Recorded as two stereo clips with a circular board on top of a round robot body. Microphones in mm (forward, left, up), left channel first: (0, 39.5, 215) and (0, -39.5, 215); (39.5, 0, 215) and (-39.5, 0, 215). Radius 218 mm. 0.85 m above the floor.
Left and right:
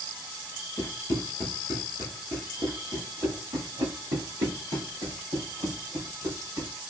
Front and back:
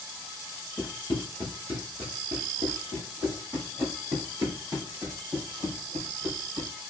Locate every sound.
0.8 s running footsteps: 130° left, 0.9 m; by 6.7 s 125° right, 3 m